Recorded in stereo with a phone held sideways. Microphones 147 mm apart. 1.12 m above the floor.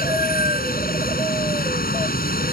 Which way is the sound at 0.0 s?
85° left.